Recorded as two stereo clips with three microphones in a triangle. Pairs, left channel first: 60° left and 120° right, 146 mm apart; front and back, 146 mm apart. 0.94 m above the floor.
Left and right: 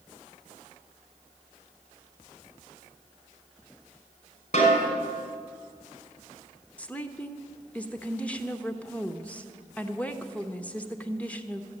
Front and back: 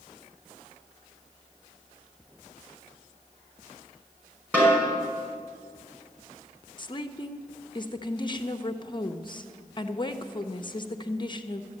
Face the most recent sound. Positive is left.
turn(degrees=-10)